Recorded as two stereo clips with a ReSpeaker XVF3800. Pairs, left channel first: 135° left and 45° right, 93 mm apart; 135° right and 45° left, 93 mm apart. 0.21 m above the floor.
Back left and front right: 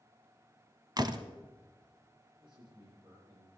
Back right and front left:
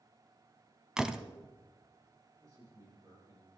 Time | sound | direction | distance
1.0 | a door slam | 35° right | 1.0 m
2.4 | a man speaking | 10° right | 10 m